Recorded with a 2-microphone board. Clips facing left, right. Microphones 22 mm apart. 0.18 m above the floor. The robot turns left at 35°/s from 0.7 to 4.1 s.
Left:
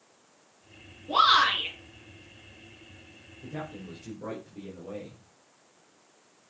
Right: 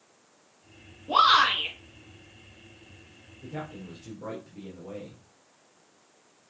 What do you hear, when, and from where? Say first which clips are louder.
1.1 s a shout: right 1 dB; 35° right (ahead or behind), 4.5 m; by 1.7 s 15° right (ahead or behind), 4.5 m
3.4 s a man speaking: even; 5° right (ahead or behind), 3 m; by 5.2 s 15° left (ahead or behind), 3 m